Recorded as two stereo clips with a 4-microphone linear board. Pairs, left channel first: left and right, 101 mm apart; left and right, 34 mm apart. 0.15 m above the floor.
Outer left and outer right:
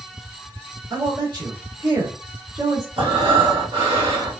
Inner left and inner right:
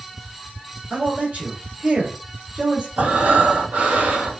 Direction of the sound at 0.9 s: 40° right (ahead or behind).